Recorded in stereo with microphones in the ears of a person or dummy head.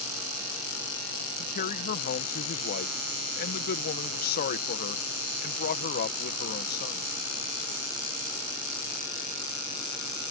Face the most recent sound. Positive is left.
turn(degrees=50)  # may be behind; listen again after turning